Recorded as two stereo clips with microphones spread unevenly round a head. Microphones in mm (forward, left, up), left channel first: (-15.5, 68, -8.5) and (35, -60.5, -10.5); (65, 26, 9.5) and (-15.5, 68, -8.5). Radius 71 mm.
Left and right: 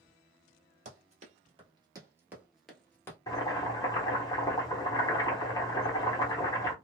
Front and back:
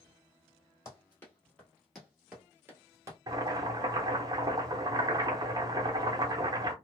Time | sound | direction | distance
0.8 | running footsteps | 70° right | 1.5 m
3.3 | boiling | 170° left | 0.7 m